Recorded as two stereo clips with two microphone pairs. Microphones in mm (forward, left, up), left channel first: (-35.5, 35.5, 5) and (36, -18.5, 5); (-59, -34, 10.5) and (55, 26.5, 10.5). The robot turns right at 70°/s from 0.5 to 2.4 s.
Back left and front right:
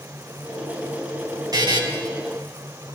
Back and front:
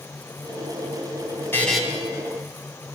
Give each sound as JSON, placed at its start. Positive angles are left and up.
{"t": 1.5, "sound": "a buzzer", "azimuth_deg": -80, "distance_m": 1.9}